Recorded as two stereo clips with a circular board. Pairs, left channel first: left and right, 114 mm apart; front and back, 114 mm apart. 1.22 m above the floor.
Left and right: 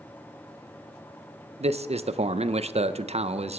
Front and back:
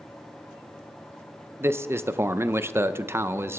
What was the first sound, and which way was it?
A man speaking, 110° right.